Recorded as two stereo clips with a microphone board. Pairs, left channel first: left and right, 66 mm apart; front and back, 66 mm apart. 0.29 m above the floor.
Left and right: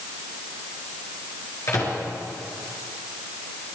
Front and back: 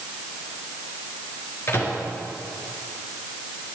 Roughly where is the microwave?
Ahead left.